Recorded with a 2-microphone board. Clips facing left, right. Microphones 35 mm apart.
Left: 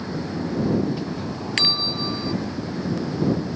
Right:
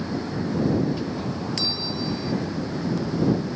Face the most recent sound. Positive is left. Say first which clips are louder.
# left 4 dB
turn(degrees=50)  # may be behind; listen again after turning